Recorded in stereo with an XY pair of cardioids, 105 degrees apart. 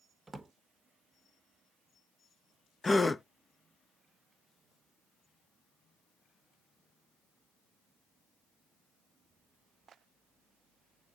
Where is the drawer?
20° right, 0.8 m.